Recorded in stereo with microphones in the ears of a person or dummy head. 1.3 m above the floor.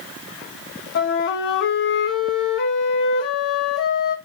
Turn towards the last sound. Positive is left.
turn(degrees=60)  # may be behind; listen again after turning